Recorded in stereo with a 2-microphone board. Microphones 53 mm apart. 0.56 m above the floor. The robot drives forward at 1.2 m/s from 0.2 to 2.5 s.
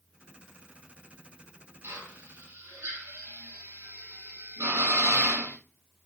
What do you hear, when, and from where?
1.8 s a drill: 70° right (ahead or behind), 7 m; by 5.5 s 75° right (ahead or behind), 6.5 m